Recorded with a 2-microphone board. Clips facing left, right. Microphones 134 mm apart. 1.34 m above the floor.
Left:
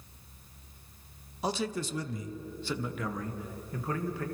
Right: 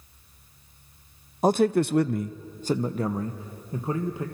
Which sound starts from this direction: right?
A man speaking, at 1.4 s.